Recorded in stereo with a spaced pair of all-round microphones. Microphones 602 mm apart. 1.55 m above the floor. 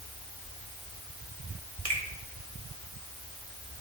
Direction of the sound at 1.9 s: 70° right (ahead or behind).